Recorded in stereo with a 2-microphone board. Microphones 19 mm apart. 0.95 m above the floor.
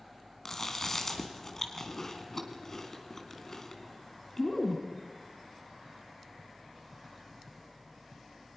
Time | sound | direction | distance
0.5 | chewing | 25° left (ahead or behind) | 2.5 m